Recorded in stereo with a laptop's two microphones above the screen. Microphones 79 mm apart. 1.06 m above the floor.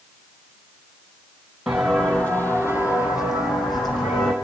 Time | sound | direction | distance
1.7 | footsteps | centre (ahead or behind) | 1.3 m